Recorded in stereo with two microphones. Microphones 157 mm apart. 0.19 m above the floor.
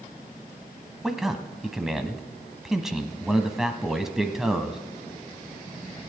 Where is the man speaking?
Centre (ahead or behind), 1.0 m.